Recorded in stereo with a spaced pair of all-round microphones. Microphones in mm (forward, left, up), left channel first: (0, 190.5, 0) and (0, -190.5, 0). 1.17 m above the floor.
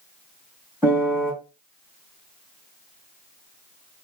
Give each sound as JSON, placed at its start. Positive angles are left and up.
{"t": 0.8, "sound": "a piano", "side_deg": -5, "distance_m": 1.4}